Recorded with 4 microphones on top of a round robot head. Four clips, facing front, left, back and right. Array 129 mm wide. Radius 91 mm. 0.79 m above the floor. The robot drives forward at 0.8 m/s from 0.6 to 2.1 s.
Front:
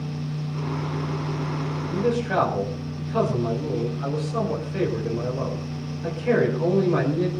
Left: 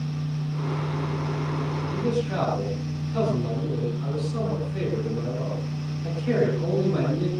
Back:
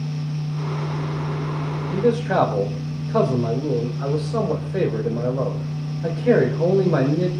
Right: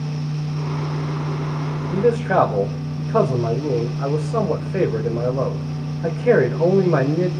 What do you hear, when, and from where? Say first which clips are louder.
1.9 s a man speaking: right 10 dB, back 4 dB; 120° right, 4 m